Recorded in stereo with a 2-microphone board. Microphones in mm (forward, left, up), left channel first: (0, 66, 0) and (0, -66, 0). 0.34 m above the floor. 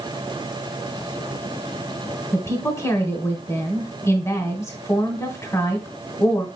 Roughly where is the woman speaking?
Left.